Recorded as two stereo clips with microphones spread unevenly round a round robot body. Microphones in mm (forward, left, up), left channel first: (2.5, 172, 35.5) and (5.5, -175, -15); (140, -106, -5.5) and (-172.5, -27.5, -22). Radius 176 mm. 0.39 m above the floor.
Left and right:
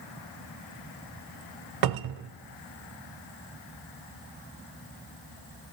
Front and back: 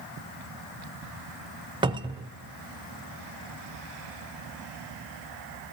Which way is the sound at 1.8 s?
120° right.